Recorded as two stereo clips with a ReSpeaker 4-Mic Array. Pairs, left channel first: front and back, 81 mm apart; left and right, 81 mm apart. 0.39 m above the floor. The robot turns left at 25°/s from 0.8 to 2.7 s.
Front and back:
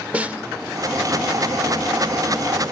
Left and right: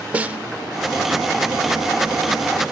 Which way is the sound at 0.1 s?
135° right.